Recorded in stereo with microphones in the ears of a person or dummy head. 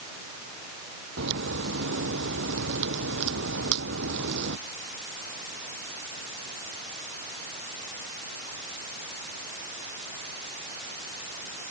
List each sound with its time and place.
1.2 s a crack: 55° right (ahead or behind)